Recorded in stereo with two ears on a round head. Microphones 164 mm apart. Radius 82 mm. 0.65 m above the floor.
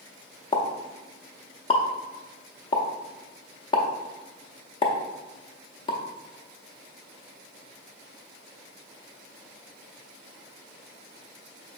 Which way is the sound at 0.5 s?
25° left (ahead or behind).